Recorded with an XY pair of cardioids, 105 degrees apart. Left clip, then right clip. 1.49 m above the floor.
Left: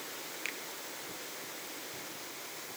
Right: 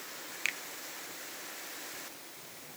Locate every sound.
0.5 s a finger snap: 45° right, 1.0 m